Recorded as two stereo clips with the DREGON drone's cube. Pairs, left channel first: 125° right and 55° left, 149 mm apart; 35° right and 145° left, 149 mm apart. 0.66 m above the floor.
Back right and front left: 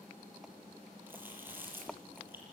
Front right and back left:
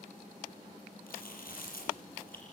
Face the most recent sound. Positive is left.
turn(degrees=-20)